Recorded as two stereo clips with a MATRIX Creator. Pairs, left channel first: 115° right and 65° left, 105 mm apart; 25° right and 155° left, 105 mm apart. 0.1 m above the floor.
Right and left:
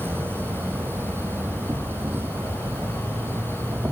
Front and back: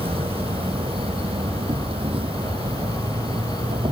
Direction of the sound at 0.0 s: 135° left.